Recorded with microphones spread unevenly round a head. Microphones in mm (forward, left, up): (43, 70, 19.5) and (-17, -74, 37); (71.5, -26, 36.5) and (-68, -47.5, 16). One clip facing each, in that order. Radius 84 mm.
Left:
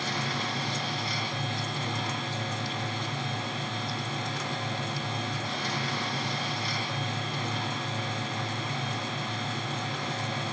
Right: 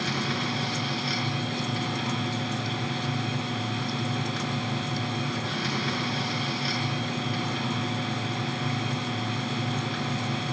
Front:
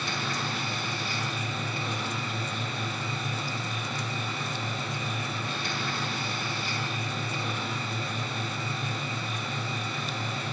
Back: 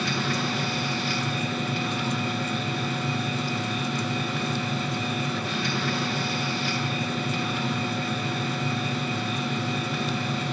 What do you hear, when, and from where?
0.0 s a machine running: 150° right, 7.5 m